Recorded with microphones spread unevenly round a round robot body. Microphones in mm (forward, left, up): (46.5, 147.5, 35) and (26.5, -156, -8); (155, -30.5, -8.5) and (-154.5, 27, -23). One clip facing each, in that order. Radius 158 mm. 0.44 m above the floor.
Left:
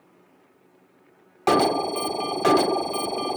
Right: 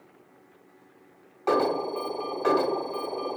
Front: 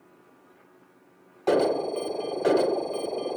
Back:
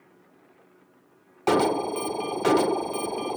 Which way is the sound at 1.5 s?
110° left.